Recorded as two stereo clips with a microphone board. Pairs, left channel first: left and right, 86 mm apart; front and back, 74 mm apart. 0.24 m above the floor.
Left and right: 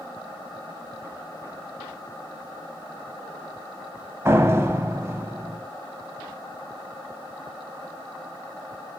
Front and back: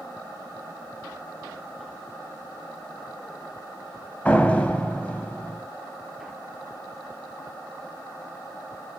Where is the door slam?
60° right, 1.2 m.